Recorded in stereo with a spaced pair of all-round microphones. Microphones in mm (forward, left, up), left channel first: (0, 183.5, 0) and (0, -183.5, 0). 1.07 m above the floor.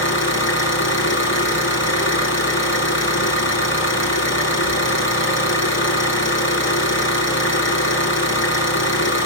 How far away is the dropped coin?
I don't hear a dropped coin.